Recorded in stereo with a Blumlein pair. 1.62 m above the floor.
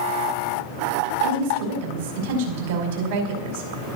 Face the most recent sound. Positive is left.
turn(degrees=-55)